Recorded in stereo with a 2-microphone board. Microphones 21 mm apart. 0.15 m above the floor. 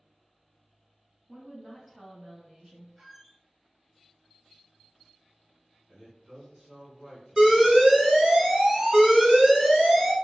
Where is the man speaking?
25° right (ahead or behind), 1.7 m.